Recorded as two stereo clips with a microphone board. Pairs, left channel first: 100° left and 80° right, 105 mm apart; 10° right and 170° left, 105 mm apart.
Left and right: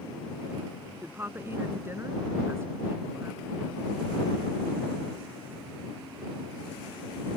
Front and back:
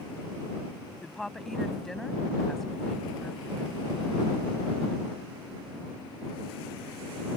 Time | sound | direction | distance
1.0 | a woman speaking | 95° right | ?